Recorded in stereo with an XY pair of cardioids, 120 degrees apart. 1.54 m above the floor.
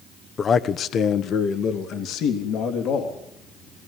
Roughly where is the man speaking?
Ahead left.